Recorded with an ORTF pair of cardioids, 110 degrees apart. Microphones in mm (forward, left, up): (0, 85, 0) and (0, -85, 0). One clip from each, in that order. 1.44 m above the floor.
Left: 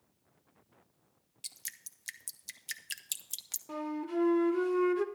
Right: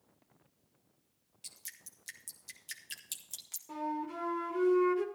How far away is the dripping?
About 1.2 m.